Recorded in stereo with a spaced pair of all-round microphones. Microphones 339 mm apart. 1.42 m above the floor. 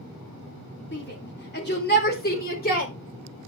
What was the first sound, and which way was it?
A shout, 35° left (ahead or behind).